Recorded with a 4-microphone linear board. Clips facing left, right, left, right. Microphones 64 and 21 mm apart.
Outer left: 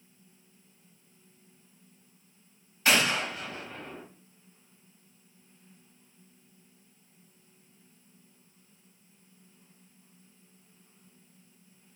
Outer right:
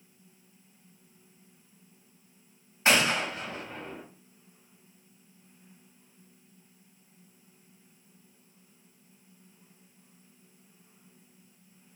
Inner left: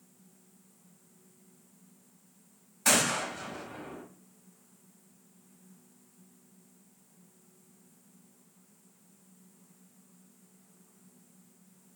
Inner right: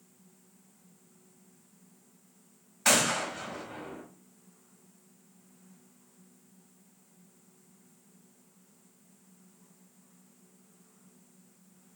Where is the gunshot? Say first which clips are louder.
Outer right 1 dB, inner right 1 dB; 25° right (ahead or behind), 0.9 m.